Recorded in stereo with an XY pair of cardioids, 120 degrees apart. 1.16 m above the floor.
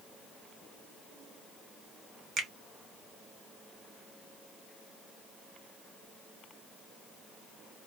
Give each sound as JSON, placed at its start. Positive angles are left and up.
{"t": 2.4, "sound": "a finger snap", "azimuth_deg": -60, "distance_m": 0.8}